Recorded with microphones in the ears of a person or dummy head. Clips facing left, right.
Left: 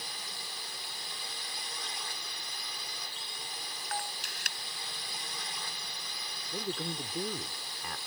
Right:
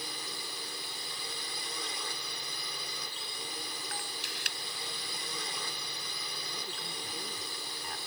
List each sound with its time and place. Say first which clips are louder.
0.0 s a drone: right 4 dB; 70° right (ahead or behind)
3.9 s a camera shutter: left 3 dB; 45° left (ahead or behind)
6.5 s a man speaking: left 11 dB; 60° left (ahead or behind)